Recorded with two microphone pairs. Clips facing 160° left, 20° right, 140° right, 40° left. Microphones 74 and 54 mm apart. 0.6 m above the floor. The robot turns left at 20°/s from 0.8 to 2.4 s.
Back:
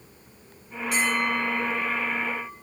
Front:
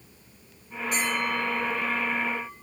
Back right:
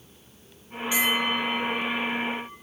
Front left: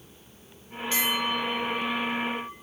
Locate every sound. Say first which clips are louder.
0.9 s a bell: back 3 dB, back right 3 dB; 145° left, 1.7 m; by 2.5 s 115° left, 1.7 m